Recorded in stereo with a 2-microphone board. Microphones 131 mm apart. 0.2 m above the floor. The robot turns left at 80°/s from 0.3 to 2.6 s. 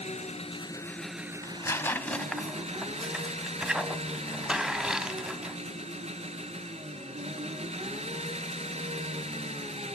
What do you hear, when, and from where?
0.0 s an engine running: 65° left, 1.2 m; by 10.0 s 120° right, 1.2 m
1.4 s tearing paper: 25° left (ahead or behind), 0.8 m; by 5.6 s 5° right (ahead or behind), 0.8 m